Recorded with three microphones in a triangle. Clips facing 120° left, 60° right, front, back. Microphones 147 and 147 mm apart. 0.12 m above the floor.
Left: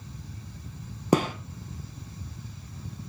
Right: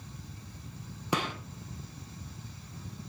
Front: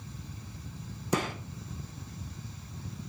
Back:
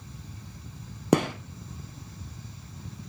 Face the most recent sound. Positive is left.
turn(degrees=165)